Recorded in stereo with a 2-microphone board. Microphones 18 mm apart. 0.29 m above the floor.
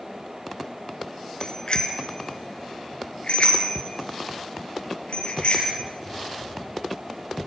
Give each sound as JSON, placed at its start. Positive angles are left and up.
{"t": 1.4, "sound": "a bicycle bell", "side_deg": 45, "distance_m": 3.0}